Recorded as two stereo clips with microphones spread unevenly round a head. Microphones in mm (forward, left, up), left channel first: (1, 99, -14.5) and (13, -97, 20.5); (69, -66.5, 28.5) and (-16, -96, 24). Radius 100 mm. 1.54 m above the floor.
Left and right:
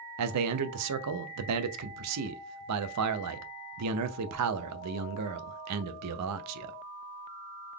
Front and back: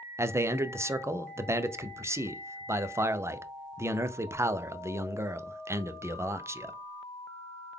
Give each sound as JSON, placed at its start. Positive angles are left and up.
{"t": 0.2, "sound": "a man speaking", "azimuth_deg": -100, "distance_m": 0.5}